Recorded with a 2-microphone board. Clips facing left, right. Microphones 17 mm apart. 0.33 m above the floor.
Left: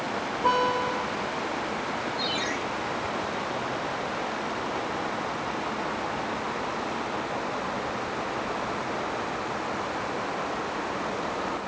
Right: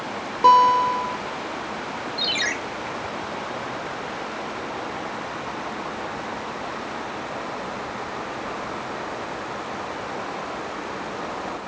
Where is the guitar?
75° right (ahead or behind), 1.8 m.